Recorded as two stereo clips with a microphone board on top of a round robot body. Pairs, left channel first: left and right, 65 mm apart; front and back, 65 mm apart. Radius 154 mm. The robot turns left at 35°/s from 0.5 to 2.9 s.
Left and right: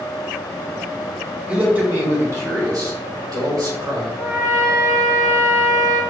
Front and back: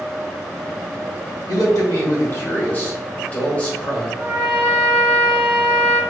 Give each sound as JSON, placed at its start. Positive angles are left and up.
{"t": 1.5, "sound": "a man speaking", "azimuth_deg": -20, "distance_m": 1.7}
{"t": 4.2, "sound": "a trumpet", "azimuth_deg": -110, "distance_m": 1.8}